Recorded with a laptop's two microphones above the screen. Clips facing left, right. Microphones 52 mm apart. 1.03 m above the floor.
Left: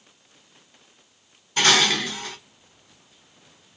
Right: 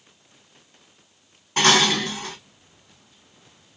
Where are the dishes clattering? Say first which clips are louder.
Right 1 dB; 55° right (ahead or behind), 1.6 m.